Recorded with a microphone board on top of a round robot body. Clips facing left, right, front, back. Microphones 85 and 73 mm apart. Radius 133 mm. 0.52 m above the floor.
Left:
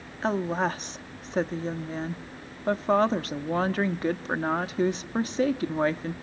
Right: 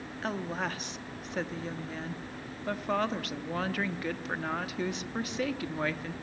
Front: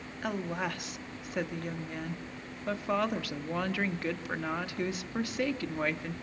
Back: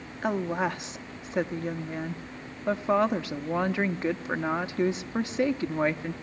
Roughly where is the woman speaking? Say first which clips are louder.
Left 8 dB, back 6 dB; behind left.